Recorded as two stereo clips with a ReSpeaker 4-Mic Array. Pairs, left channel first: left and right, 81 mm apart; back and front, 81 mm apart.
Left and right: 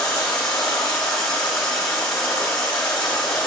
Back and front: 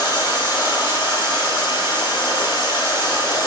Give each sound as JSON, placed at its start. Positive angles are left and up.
{"t": 0.0, "sound": "running water", "azimuth_deg": 170, "distance_m": 4.5}